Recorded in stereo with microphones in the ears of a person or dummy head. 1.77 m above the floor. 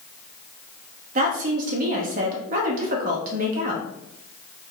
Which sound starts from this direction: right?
A woman speaking, at 1.1 s.